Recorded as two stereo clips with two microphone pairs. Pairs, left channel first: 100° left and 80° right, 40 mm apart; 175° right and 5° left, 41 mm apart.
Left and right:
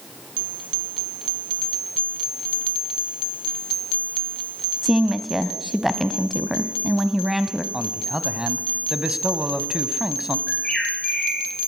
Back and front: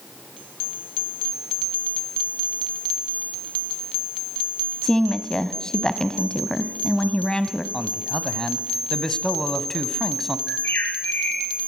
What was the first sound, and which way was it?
A woman speaking, 155° right.